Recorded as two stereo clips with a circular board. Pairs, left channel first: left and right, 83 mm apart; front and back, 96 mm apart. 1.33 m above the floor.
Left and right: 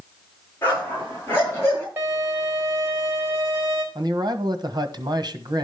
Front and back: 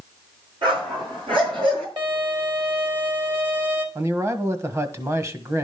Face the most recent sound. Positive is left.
turn(degrees=-120)